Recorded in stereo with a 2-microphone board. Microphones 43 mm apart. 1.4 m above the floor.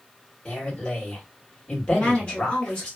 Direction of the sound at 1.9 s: 30° left (ahead or behind).